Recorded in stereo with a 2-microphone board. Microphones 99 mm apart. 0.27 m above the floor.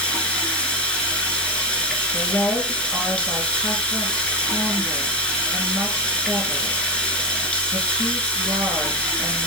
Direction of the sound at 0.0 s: 10° left (ahead or behind).